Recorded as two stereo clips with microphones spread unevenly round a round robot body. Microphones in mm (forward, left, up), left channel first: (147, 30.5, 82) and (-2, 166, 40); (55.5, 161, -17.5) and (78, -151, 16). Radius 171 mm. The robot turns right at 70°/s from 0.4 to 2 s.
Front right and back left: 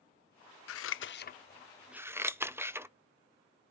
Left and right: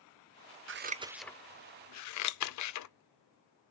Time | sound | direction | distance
0.7 | scissors | 30° right | 0.6 m